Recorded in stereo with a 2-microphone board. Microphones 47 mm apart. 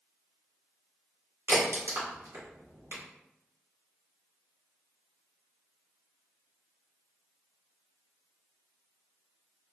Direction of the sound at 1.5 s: 70° right (ahead or behind).